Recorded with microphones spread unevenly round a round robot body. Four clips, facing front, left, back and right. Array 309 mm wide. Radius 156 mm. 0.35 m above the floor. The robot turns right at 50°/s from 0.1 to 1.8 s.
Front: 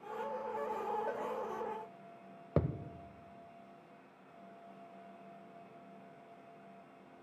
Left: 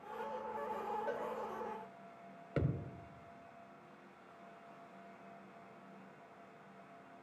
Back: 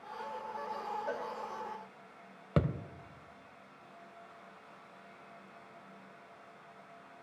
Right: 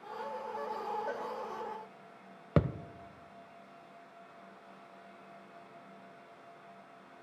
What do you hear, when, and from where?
1.1 s a cowbell: 15° left, 1.3 m; by 1.3 s 25° left, 1.3 m
2.6 s a thud: 110° right, 0.5 m